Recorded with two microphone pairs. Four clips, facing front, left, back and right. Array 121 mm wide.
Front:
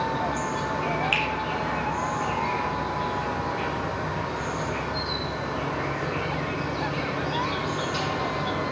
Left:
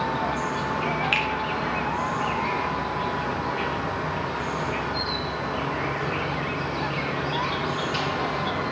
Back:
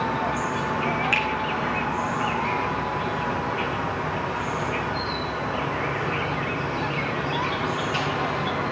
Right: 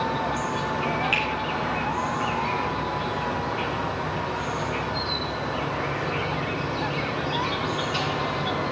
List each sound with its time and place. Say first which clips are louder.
0.0 s an insect: even, back 2 dB; 145° left, 1.6 m
1.1 s a finger snap: left 1 dB, back 2 dB; 135° left, 2 m